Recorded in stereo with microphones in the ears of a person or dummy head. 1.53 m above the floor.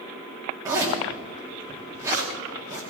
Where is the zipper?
20° right (ahead or behind), 3 m.